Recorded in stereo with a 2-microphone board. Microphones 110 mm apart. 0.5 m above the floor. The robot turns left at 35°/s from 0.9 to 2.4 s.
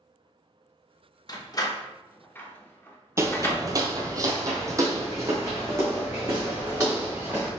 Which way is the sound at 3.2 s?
25° right (ahead or behind).